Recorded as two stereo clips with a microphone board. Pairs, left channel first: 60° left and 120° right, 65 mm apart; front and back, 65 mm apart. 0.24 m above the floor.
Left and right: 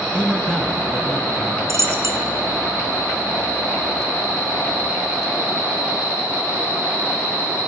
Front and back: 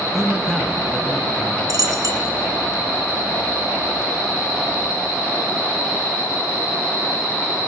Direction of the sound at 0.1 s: 95° left.